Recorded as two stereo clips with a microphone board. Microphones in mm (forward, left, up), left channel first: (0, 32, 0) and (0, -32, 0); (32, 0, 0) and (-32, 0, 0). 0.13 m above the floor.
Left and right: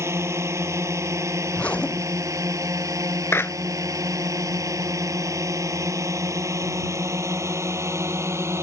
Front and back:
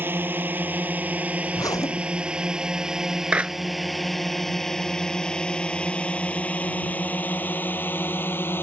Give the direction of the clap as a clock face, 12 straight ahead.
8 o'clock.